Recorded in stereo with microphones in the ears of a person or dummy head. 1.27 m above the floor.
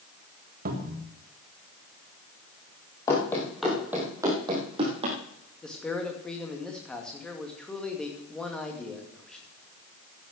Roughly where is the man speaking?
Centre.